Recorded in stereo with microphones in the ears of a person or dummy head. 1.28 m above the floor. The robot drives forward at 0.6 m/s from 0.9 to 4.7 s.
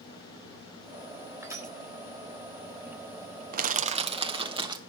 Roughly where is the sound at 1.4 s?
Centre.